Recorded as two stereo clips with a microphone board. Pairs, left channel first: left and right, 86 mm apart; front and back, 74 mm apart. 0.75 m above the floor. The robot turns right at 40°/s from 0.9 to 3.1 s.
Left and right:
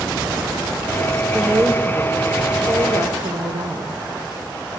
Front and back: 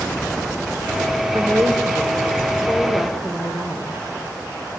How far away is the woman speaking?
About 3 m.